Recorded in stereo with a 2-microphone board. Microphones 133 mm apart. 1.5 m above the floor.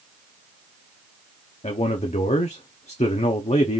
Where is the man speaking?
55° left (ahead or behind), 0.6 m.